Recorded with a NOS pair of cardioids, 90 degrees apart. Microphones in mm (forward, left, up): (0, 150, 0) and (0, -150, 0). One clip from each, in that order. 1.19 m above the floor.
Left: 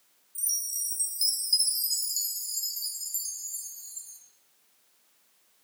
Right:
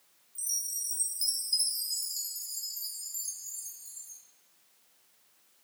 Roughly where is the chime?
Ahead left.